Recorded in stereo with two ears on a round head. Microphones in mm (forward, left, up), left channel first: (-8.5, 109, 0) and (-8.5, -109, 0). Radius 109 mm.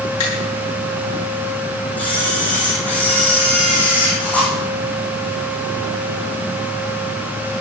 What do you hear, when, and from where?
0.2 s a finger snap: 75° left (ahead or behind), 7.5 m
2.0 s a camera shutter: 5° left (ahead or behind), 6 m